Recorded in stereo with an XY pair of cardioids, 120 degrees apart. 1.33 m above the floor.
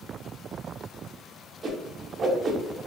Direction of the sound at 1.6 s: 40° right.